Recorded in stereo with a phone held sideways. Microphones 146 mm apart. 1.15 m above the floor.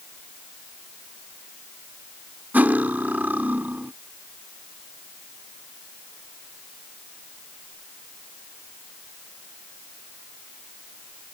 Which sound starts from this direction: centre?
Cutlery clinking, at 2.5 s.